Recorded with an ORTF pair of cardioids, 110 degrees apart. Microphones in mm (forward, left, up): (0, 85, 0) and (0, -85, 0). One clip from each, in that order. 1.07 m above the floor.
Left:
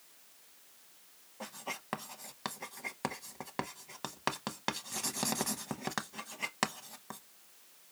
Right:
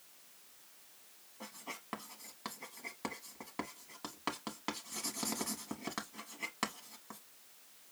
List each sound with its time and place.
1.4 s writing: 35° left, 0.8 m